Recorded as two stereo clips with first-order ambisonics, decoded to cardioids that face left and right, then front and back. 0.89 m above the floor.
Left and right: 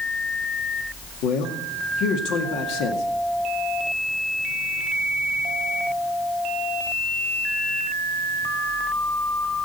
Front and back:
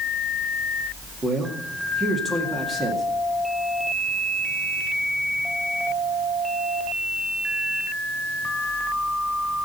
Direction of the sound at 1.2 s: 110° left.